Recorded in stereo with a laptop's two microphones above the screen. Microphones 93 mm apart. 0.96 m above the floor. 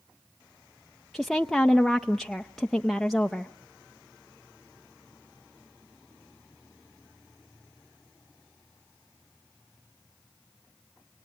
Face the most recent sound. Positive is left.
turn(degrees=0)  # may be behind; listen again after turning